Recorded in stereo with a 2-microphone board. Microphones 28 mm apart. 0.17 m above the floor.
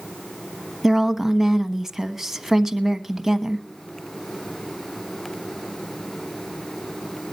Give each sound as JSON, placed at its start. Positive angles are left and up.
{"t": 0.8, "sound": "a woman speaking", "side_deg": -10, "distance_m": 1.2}